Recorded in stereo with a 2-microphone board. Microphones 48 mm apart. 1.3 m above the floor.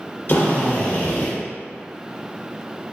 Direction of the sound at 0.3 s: 50° left (ahead or behind).